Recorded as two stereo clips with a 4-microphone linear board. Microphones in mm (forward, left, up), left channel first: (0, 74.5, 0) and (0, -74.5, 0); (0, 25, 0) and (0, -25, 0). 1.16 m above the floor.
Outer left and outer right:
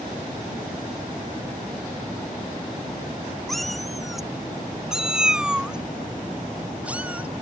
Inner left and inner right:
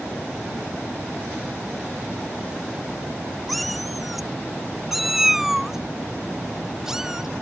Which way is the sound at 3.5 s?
Centre (ahead or behind).